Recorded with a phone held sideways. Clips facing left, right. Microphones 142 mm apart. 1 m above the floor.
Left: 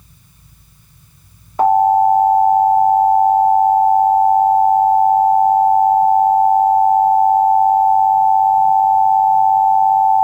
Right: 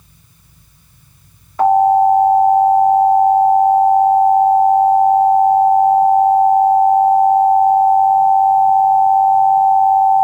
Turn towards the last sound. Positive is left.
turn(degrees=25)  # may be behind; listen again after turning